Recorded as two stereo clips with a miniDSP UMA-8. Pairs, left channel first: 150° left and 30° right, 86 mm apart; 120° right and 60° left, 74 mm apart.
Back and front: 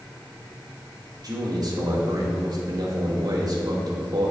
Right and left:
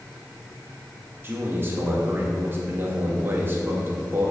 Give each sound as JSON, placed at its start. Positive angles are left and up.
{"t": 1.2, "sound": "a man speaking", "azimuth_deg": 5, "distance_m": 2.5}